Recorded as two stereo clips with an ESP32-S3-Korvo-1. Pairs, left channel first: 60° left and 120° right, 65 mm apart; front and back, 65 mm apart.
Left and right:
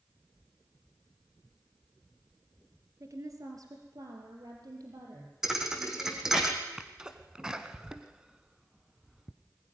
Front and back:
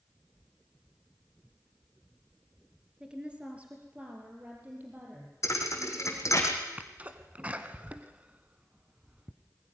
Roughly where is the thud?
Ahead right.